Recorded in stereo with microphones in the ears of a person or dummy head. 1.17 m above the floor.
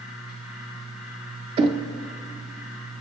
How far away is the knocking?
About 0.7 m.